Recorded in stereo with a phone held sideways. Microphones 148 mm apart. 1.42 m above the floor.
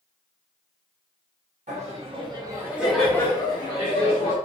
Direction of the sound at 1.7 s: 50° right (ahead or behind).